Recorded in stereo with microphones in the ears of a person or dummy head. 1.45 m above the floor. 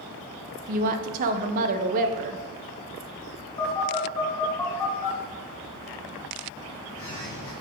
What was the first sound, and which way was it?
A woman speaking, 45° right (ahead or behind).